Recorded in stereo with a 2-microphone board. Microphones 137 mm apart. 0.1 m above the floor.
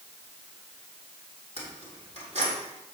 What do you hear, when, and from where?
1.6 s keys jangling: 50° right (ahead or behind), 3 m